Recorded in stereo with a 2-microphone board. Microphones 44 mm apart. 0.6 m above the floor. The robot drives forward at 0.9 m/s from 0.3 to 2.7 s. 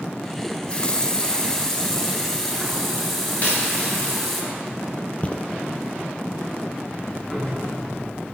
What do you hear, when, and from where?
0.4 s a running tap: 30° left (ahead or behind), 0.8 m; by 4.4 s 10° left (ahead or behind), 2.5 m
3.4 s a dropped coin: 40° left (ahead or behind), 5 m
5.2 s footsteps: 35° left (ahead or behind), 0.8 m
6.9 s ticking: 5° left (ahead or behind), 3.5 m